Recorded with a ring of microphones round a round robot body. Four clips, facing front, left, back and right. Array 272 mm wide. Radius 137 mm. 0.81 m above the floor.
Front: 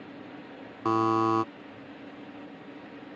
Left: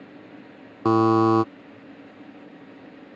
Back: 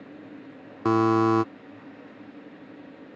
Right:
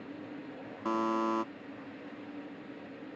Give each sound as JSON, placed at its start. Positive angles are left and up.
{"t": 0.8, "sound": "a buzzer", "azimuth_deg": 115}